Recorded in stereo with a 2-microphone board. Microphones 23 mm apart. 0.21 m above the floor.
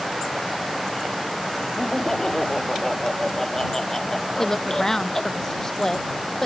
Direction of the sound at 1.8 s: 20° left (ahead or behind).